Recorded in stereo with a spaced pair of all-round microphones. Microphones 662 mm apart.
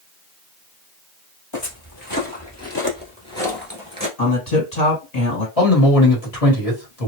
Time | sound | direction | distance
1.5 | footsteps | 40° left (ahead or behind) | 1.5 m
4.2 | a man speaking | 70° left (ahead or behind) | 1.7 m
5.6 | a man speaking | 60° left (ahead or behind) | 1.4 m